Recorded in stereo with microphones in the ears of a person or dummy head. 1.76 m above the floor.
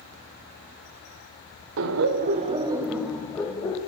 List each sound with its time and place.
1.8 s laughter: 70° right (ahead or behind), 0.6 m; by 3.8 s 20° left (ahead or behind), 1.1 m